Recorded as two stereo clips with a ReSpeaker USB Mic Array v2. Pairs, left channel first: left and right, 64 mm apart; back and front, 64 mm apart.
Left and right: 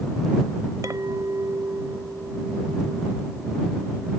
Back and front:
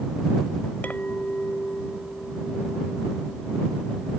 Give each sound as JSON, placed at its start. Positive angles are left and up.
{"t": 0.8, "sound": "a clink", "azimuth_deg": -115}